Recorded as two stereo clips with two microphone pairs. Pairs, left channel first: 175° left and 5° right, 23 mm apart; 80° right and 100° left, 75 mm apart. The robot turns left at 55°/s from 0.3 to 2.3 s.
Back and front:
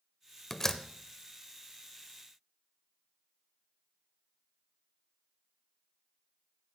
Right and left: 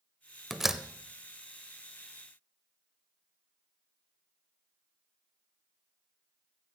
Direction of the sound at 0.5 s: 175° right.